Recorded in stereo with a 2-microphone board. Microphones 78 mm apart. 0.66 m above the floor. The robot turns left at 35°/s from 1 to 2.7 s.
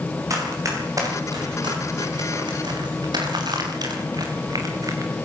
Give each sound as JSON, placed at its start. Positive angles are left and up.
{"t": 0.3, "sound": "running footsteps", "side_deg": -45, "distance_m": 9.5}